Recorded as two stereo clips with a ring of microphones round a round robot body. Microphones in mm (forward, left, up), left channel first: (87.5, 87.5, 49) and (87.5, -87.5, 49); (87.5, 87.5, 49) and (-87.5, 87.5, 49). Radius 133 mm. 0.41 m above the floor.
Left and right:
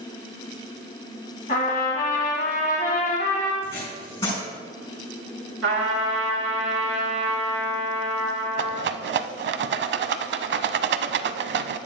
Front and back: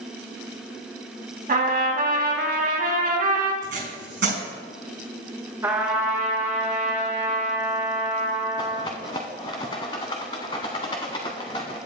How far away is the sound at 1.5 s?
About 2 m.